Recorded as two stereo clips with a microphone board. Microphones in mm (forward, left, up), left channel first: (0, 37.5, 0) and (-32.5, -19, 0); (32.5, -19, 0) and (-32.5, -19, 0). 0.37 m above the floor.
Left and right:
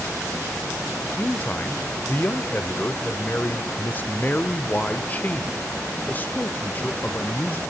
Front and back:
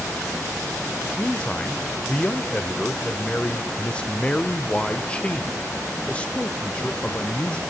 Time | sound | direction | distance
1.2 | a man speaking | 50° left | 0.8 m